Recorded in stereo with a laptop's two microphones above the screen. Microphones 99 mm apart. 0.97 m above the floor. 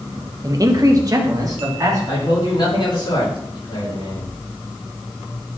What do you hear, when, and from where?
0.4 s a man speaking: 35° right (ahead or behind), 0.6 m
2.1 s a man speaking: 50° left (ahead or behind), 2.5 m